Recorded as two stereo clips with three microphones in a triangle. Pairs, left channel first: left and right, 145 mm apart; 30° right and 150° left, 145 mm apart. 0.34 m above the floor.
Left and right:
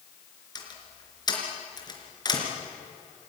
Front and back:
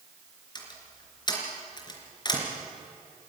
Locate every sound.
0.6 s a door slam: 30° left, 3.5 m